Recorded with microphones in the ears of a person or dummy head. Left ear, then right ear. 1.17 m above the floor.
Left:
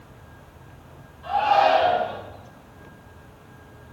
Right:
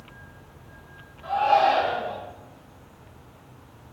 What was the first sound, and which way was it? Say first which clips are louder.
A shout: left 1 dB; 15° right (ahead or behind).